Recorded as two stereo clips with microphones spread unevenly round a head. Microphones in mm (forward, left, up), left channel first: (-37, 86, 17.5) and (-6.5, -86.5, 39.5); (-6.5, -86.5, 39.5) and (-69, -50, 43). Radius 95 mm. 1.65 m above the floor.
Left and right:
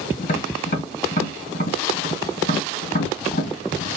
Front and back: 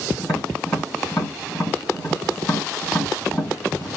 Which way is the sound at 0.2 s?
50° left.